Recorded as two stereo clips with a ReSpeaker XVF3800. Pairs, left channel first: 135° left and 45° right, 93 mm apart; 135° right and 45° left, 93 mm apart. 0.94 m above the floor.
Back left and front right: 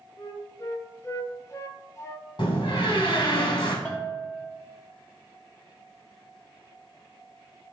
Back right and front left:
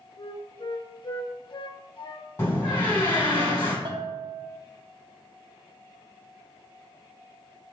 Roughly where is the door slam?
Behind.